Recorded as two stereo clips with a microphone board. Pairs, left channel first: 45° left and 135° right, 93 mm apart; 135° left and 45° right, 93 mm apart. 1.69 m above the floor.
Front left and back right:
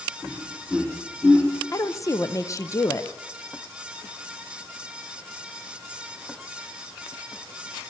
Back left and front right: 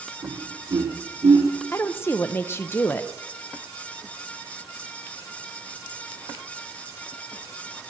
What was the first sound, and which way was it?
Laughter, 30° right.